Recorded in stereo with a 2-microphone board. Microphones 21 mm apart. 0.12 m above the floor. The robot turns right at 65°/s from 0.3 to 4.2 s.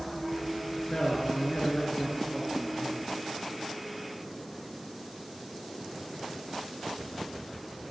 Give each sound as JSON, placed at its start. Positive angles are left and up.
{"t": 0.7, "sound": "a man speaking", "azimuth_deg": 45, "distance_m": 2.0}